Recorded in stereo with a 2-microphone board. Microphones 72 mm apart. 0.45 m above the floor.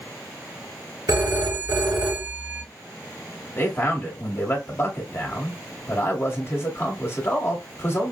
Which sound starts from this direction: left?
A man speaking, at 3.5 s.